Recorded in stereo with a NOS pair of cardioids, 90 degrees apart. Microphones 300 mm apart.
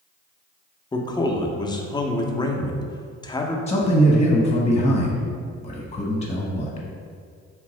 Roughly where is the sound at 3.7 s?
Ahead.